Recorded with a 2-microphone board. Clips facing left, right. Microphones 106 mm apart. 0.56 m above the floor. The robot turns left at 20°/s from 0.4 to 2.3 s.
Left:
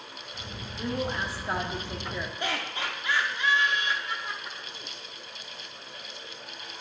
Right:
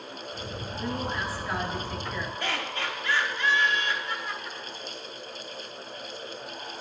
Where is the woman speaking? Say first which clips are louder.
Left 1 dB; 25° left (ahead or behind), 1.2 m.